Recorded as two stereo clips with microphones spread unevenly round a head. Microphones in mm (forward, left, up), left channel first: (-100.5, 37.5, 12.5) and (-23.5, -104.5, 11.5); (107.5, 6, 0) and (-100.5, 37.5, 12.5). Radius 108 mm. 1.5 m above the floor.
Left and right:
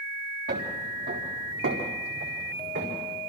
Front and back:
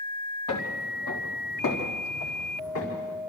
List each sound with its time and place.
0.5 s footsteps: 25° right, 3.5 m; by 3.1 s 40° right, 6 m